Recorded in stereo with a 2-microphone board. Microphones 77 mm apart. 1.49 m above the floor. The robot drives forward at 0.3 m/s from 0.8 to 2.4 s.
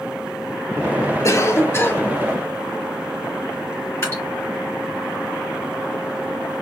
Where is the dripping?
35° left (ahead or behind), 3 m.